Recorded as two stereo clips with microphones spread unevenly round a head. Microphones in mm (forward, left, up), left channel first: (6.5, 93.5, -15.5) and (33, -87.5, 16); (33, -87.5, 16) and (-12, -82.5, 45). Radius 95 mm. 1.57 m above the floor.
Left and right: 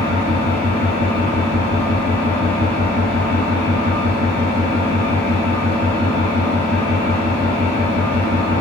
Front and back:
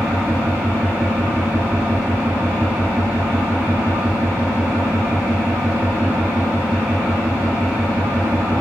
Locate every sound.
0.0 s an engine running: 135° left, 1.7 m